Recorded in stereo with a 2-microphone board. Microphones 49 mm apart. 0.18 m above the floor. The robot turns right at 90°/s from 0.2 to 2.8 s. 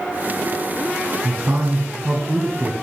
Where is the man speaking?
135° right, 1.5 m; by 2.7 s straight ahead, 1.5 m.